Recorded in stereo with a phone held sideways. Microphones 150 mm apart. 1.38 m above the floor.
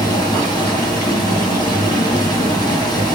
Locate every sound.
0.0 s running water: 25° left (ahead or behind), 7 m